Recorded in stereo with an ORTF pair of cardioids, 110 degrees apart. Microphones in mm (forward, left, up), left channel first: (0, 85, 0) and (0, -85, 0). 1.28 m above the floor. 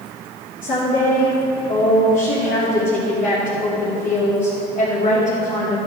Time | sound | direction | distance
0.6 | a woman speaking | 50° left | 3 m